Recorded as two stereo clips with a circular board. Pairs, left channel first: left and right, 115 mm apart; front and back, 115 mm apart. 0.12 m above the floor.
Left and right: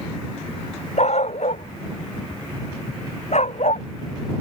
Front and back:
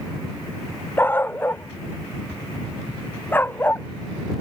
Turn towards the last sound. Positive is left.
turn(degrees=70)